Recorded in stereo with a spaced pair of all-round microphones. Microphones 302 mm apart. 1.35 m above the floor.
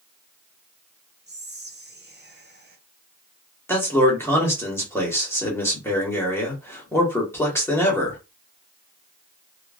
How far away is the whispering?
About 0.9 m.